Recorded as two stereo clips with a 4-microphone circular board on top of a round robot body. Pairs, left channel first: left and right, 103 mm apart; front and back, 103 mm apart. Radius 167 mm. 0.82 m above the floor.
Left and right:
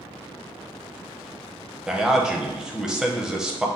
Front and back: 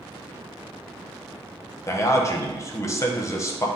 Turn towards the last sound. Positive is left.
turn(degrees=-15)